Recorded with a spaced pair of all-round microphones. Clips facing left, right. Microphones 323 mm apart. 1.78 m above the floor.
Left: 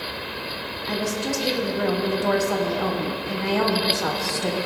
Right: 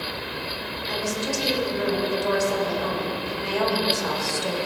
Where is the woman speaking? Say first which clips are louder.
Left 2 dB; 70° left (ahead or behind), 1.2 m.